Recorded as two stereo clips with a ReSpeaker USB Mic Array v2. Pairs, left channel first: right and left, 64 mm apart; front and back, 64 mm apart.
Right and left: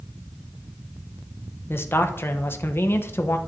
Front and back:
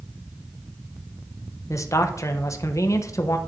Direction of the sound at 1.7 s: 35° right.